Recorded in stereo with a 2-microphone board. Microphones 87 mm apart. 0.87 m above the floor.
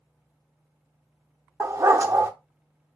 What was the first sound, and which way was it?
A dog barking, 30° right (ahead or behind).